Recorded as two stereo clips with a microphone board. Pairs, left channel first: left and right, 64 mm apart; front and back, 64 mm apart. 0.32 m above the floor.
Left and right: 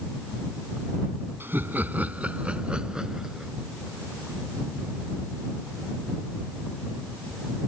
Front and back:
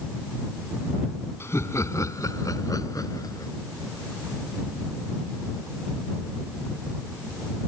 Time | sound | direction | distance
1.4 | laughter | 40° right | ?